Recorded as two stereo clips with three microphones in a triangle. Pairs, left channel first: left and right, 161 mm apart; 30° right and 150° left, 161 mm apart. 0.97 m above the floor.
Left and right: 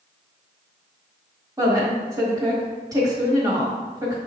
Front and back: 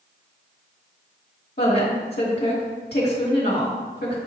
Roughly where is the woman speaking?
Ahead.